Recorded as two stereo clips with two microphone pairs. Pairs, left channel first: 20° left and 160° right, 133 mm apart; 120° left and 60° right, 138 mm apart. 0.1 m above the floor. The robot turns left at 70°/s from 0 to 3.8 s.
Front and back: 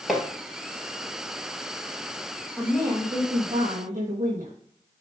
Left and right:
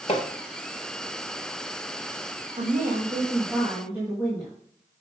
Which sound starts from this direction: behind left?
Hammering, at 0.1 s.